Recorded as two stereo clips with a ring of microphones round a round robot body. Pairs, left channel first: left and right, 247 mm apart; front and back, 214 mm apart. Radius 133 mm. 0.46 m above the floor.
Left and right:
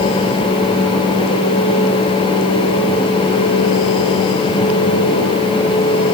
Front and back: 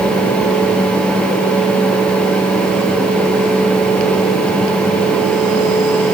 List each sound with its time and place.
Only background noise.